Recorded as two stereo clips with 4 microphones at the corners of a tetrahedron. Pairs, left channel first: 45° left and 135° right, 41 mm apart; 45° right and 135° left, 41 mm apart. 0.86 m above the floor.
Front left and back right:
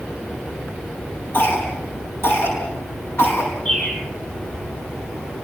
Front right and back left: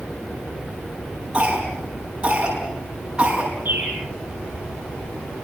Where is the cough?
70° left, 7 m.